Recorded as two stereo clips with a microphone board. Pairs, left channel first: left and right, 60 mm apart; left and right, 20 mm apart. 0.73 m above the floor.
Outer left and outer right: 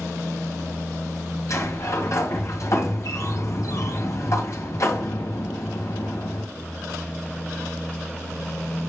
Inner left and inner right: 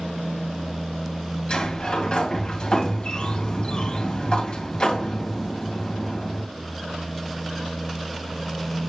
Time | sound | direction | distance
1.5 | a sliding door | 65° left (ahead or behind) | 2.5 m